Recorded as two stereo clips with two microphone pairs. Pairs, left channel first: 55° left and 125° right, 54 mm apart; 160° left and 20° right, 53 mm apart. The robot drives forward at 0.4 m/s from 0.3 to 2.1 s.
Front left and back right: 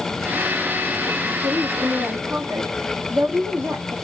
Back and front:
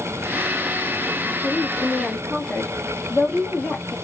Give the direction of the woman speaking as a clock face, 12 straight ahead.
4 o'clock.